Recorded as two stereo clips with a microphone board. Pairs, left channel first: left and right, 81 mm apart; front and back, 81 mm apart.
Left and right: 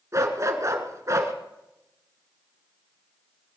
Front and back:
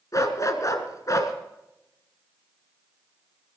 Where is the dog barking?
45° right, 1.7 m.